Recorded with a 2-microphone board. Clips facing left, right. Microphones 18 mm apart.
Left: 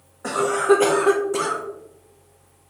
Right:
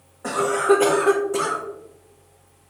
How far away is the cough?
About 0.6 m.